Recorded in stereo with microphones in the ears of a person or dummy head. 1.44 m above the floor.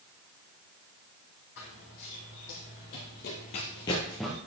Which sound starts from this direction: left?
Running footsteps, at 1.6 s.